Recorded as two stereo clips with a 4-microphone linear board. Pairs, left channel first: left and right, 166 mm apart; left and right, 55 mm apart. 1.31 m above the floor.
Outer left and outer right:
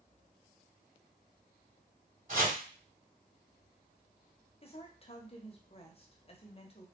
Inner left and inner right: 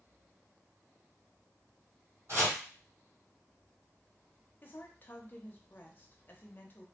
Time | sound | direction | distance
2.3 | chopping | 50° right (ahead or behind) | 1.7 m
4.6 | a woman speaking | 35° left (ahead or behind) | 0.5 m